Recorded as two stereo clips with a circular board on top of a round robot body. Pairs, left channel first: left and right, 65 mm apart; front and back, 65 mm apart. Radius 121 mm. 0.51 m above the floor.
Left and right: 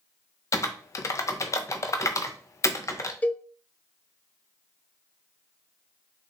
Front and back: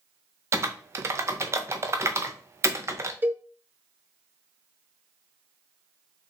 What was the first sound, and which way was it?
Typing on a keyboard, 130° left.